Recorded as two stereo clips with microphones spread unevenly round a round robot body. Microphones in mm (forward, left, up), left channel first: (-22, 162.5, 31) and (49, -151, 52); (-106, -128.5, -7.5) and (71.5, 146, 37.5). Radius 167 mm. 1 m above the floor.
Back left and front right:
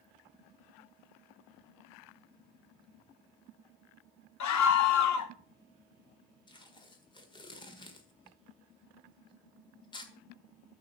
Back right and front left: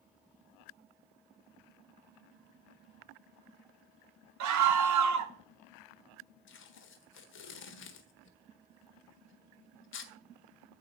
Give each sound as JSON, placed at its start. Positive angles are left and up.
{"t": 4.4, "sound": "a scream", "azimuth_deg": 90, "distance_m": 1.0}
{"t": 6.5, "sound": "tape being pulled", "azimuth_deg": 180, "distance_m": 1.5}